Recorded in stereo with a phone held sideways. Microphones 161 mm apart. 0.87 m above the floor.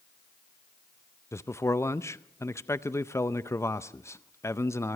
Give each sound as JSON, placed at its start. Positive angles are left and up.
{"t": 1.3, "sound": "a man speaking", "side_deg": 15, "distance_m": 0.5}